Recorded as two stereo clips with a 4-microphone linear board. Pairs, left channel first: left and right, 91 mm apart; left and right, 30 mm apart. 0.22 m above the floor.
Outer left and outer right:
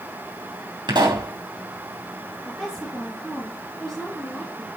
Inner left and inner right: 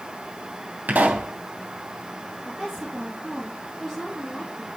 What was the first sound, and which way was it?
A pop, 55° right (ahead or behind).